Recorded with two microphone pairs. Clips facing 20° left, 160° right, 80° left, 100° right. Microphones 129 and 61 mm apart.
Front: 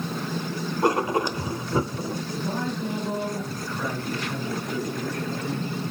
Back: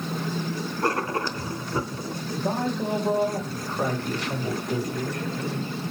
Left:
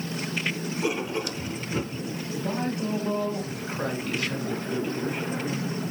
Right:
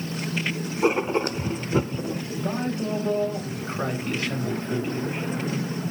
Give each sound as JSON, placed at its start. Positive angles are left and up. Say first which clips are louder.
{"t": 0.8, "sound": "writing", "louder": "front 4 dB, right 7 dB", "azimuth_deg": -55, "distance_m": 0.7}
{"t": 2.3, "sound": "a man speaking", "louder": "back 6 dB, even", "azimuth_deg": -160, "distance_m": 3.5}